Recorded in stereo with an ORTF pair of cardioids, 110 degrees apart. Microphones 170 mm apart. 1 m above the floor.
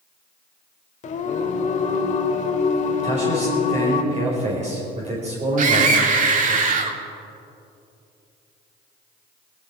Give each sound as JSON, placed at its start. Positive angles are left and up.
{"t": 1.0, "sound": "singing", "azimuth_deg": 50, "distance_m": 1.5}
{"t": 3.0, "sound": "a man speaking", "azimuth_deg": -40, "distance_m": 4.0}
{"t": 5.6, "sound": "a scream", "azimuth_deg": -50, "distance_m": 2.0}